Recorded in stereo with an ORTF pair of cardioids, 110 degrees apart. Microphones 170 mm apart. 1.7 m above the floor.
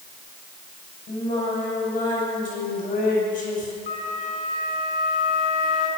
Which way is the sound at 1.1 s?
60° left.